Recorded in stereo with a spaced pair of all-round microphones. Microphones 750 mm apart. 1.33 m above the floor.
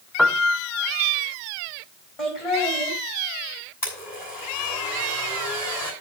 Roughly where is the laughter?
Left.